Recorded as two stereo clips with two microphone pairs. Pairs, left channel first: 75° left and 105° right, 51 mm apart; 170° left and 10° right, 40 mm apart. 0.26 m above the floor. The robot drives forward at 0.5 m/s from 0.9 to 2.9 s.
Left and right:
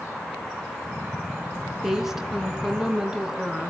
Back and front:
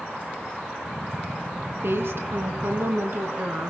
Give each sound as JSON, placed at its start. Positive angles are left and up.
{"t": 1.8, "sound": "a woman speaking", "azimuth_deg": -20, "distance_m": 3.0}